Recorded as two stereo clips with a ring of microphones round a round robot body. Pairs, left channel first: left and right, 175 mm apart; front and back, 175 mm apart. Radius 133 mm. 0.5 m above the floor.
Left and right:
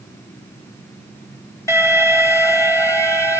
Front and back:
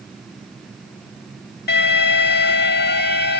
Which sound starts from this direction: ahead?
An alarm, at 1.7 s.